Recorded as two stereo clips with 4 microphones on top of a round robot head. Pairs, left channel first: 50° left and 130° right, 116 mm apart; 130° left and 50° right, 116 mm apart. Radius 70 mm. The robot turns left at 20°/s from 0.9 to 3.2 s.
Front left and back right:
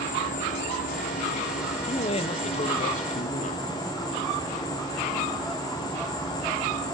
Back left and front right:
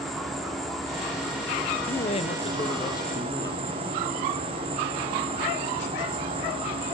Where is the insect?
40° left, 4.5 m; by 6.9 s 5° right, 4.5 m.